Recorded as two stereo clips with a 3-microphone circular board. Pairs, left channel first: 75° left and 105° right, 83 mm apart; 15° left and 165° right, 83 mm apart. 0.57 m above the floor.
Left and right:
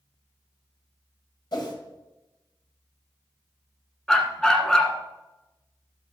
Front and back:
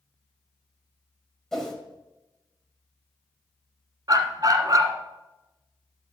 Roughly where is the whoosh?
Left.